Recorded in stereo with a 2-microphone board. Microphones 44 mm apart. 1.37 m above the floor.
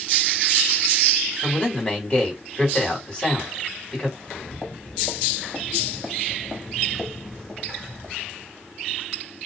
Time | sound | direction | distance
1.4 | a man speaking | 20° left (ahead or behind) | 3 m
4.2 | footsteps | 20° left (ahead or behind) | 2 m